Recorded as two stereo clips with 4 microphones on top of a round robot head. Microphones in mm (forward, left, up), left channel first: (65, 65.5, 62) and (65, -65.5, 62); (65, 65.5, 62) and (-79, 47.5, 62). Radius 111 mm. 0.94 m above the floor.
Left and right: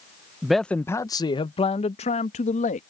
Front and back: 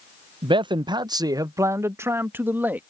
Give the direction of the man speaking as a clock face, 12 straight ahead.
6 o'clock.